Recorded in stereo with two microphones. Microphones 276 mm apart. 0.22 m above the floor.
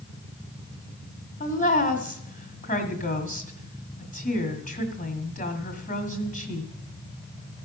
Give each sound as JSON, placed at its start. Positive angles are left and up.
{"t": 1.4, "sound": "a woman speaking", "side_deg": 25, "distance_m": 1.6}